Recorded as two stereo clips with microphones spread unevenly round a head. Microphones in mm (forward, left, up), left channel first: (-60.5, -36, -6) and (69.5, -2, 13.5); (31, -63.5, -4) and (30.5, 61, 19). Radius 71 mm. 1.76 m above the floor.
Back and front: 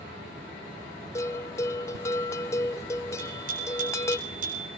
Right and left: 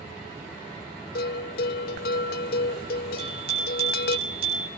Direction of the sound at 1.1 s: 95° right.